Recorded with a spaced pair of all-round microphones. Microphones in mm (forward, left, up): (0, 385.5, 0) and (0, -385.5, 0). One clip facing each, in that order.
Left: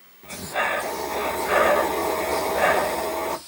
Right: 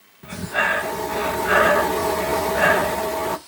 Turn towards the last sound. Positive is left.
turn(degrees=-50)  # may be behind; listen again after turning